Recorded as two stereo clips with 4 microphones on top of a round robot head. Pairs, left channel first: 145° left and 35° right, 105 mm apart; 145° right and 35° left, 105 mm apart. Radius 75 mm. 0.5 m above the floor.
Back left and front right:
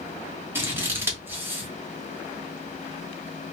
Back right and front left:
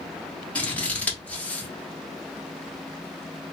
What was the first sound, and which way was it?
Scissors, 80° right.